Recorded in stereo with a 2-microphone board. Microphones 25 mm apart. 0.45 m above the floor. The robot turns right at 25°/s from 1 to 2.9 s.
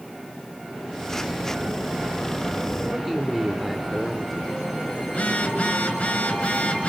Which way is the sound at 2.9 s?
Centre (ahead or behind).